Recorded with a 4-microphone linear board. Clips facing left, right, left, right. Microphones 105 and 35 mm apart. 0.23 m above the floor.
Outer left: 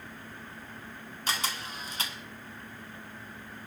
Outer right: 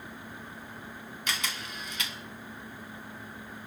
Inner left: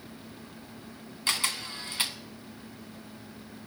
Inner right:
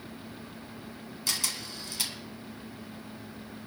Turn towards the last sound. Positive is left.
turn(degrees=35)  # may be behind; listen again after turning